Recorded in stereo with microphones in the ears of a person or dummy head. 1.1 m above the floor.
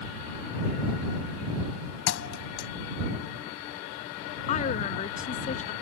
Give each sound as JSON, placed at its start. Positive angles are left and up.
{"t": 2.1, "sound": "a thud", "side_deg": 75}
{"t": 4.5, "sound": "a woman speaking", "side_deg": 40}